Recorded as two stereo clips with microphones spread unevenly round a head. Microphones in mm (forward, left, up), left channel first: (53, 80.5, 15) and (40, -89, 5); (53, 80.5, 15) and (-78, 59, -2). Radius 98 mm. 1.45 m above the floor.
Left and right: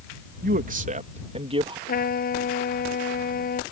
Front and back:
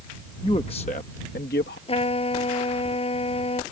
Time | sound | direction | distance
0.4 | a man speaking | 60° right | ?
1.9 | a trumpet | 50° left | ?